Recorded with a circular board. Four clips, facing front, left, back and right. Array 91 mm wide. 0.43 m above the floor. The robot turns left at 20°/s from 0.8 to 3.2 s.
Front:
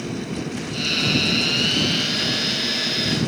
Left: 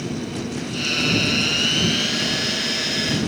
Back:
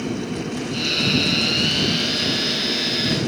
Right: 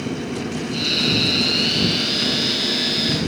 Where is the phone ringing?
No phone ringing in this recording.